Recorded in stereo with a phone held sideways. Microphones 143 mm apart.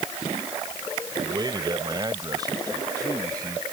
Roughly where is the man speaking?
Right.